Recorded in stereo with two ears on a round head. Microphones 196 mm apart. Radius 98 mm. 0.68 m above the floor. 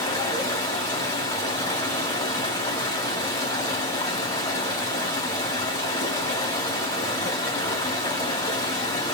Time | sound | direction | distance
0.0 | running water | 15° left (ahead or behind) | 2 m